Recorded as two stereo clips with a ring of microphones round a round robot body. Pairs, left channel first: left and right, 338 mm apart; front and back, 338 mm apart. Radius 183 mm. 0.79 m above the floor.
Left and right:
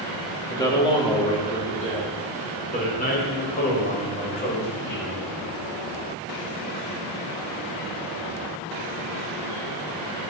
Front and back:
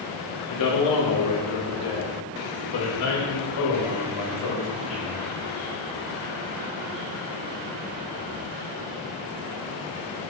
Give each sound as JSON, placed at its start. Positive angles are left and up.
{"t": 0.5, "sound": "a man speaking", "azimuth_deg": 10, "distance_m": 1.7}